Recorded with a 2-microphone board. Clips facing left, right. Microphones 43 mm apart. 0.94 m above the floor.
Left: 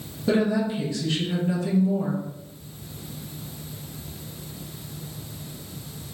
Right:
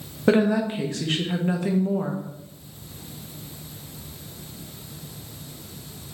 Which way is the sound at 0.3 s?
45° right (ahead or behind).